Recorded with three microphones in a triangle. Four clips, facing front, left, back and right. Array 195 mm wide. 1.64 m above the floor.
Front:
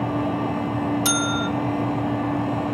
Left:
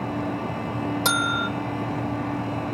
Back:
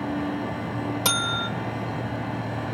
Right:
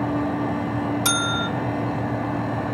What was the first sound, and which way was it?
A bell, 145° left.